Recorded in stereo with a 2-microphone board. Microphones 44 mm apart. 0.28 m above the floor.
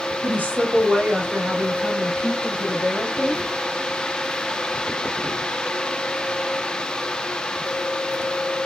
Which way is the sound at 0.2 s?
40° right (ahead or behind).